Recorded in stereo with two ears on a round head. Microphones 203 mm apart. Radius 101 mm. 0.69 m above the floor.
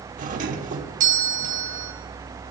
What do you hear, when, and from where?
0.2 s a doorbell: 35° right (ahead or behind), 1.4 m